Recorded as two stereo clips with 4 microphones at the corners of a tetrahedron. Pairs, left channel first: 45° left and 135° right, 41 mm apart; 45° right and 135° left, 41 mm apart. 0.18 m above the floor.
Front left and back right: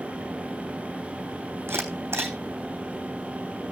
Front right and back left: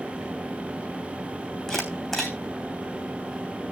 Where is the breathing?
No breathing in this recording.